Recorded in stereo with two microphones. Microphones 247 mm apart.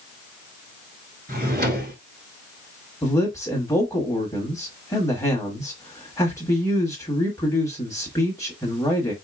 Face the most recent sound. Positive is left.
turn(degrees=15)  # may be behind; listen again after turning